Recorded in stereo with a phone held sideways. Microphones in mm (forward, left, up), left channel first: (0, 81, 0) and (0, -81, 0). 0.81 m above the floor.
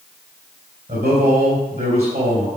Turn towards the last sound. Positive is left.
turn(degrees=-45)  # may be behind; listen again after turning